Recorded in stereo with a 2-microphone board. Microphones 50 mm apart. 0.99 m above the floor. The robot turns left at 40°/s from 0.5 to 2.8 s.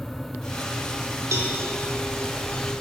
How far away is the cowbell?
About 1.0 m.